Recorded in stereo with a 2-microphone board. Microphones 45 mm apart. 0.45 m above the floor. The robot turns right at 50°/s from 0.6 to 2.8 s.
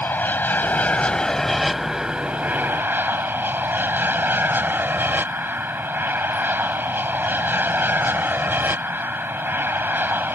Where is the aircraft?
130° left; by 10.4 s 120° right.